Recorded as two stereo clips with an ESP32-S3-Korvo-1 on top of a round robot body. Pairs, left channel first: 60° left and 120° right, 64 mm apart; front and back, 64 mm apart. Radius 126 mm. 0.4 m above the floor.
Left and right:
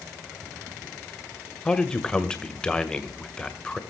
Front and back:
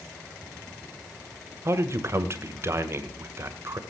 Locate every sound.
1.6 s a man speaking: 135° left, 1.9 m